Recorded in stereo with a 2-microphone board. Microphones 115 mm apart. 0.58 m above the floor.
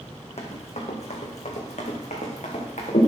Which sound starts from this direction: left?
Running footsteps, at 0.4 s.